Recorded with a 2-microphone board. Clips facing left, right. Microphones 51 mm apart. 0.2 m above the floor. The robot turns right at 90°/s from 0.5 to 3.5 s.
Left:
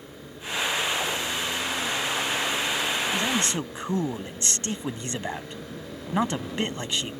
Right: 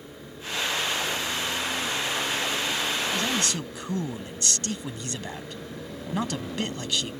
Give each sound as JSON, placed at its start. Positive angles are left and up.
{"t": 3.1, "sound": "a man speaking", "side_deg": 20}